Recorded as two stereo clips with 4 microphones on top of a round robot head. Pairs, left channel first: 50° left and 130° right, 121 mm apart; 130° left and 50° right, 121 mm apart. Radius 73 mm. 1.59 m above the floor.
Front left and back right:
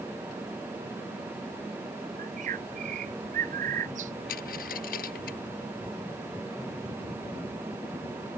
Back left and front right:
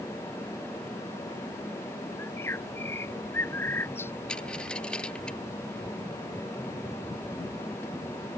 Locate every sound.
2.2 s a bird: 160° right
4.3 s a dropped coin: 45° left